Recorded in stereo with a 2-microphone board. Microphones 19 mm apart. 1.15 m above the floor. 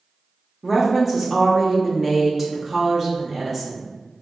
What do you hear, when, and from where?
0.6 s a woman speaking: 15° right (ahead or behind), 0.7 m